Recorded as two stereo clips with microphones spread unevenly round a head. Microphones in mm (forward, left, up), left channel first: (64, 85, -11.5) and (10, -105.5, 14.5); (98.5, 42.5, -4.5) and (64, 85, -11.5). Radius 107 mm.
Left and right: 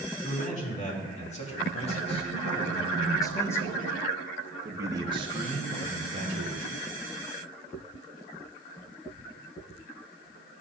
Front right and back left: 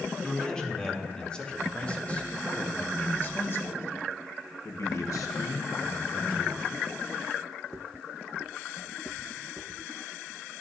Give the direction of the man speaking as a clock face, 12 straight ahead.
11 o'clock.